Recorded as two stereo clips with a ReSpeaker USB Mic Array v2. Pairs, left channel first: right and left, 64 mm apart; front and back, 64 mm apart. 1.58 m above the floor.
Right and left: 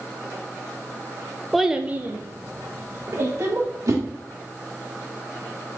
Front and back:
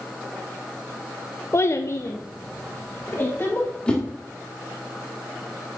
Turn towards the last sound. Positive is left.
turn(degrees=70)